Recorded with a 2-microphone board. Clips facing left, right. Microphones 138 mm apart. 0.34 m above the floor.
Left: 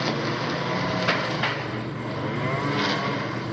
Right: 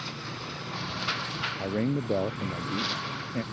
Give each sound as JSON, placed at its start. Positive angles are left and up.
{"t": 0.0, "sound": "a lawn mower", "side_deg": 75}
{"t": 1.6, "sound": "a man speaking", "side_deg": -75}